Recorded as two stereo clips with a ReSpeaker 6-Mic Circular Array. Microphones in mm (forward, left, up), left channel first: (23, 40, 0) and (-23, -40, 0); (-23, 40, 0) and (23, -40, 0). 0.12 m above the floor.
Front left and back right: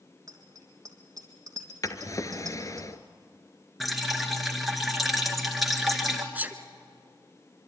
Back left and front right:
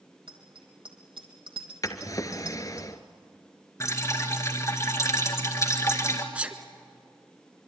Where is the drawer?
90° left, 1.1 m.